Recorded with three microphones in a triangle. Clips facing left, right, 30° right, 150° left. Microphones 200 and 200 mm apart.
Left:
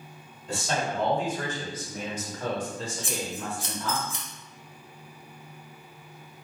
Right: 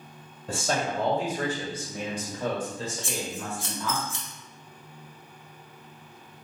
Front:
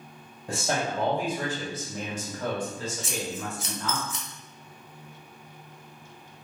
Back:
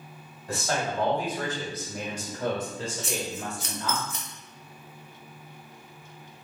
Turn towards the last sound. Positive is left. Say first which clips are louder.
# even, even
turn(degrees=160)